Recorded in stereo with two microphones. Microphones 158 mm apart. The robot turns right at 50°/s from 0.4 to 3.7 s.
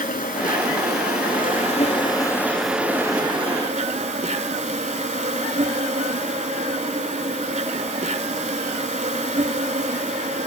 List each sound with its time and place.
0.0 s an insect: 65° left, 0.7 m; by 10.5 s 130° right, 0.7 m